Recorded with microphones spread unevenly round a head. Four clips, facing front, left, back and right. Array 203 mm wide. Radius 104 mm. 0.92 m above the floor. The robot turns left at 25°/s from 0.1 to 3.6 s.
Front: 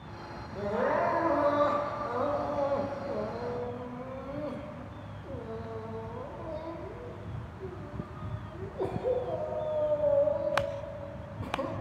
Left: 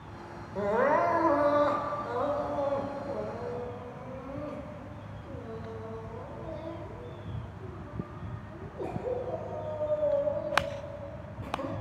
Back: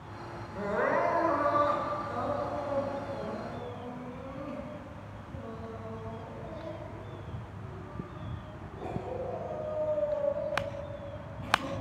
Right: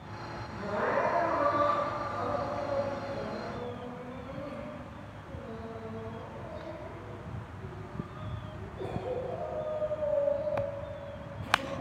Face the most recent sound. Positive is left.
turn(degrees=5)